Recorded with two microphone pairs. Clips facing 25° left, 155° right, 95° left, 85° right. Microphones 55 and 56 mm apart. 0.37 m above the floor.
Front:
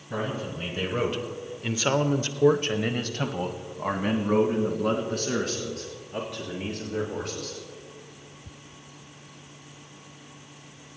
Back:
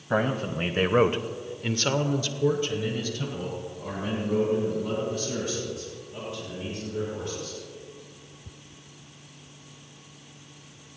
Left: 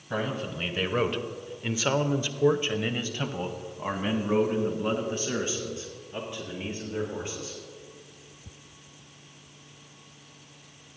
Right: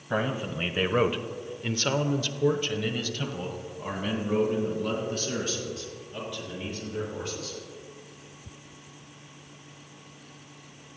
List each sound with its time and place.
0.1 s a man speaking: 155° right, 1.8 m; by 7.6 s 30° left, 6 m